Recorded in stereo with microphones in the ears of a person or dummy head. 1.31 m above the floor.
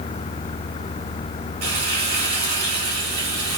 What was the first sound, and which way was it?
Frying, 45° right (ahead or behind).